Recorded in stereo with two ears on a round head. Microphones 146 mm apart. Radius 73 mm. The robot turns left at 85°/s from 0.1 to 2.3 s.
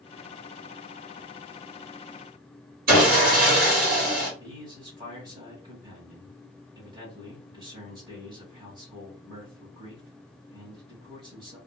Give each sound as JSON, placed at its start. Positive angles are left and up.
{"t": 2.9, "sound": "sawing", "side_deg": -55, "distance_m": 1.7}
{"t": 4.4, "sound": "a man speaking", "side_deg": -25, "distance_m": 1.7}